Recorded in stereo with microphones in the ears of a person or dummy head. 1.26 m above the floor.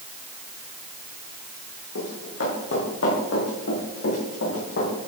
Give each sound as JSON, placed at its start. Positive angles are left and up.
{"t": 1.9, "sound": "running footsteps", "side_deg": 80, "distance_m": 6.0}